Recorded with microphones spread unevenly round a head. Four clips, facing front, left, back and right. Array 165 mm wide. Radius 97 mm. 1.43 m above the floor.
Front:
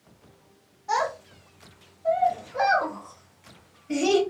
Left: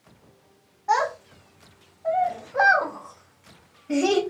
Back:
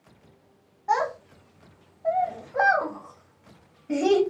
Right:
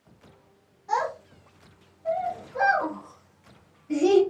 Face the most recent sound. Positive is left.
turn(degrees=155)